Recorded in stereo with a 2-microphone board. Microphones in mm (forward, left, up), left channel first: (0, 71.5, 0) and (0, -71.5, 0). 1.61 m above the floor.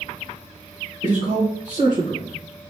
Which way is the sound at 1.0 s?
65° right (ahead or behind).